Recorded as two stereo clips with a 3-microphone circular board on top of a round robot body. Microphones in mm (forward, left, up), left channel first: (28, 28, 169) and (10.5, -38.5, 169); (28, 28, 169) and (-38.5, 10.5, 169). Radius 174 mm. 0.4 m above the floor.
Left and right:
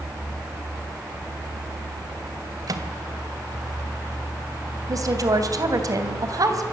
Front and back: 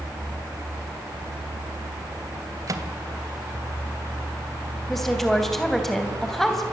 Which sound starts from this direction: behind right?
A microwave, at 2.7 s.